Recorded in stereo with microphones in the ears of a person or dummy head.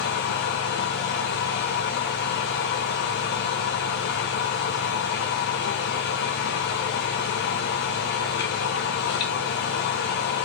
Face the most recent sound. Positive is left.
turn(degrees=70)  # may be behind; listen again after turning